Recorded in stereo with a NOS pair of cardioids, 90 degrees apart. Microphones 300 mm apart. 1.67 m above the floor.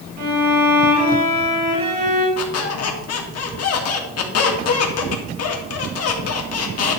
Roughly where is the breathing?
No breathing in this recording.